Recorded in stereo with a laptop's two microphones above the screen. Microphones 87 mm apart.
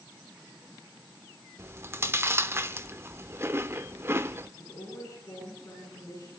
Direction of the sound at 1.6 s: 30° right (ahead or behind).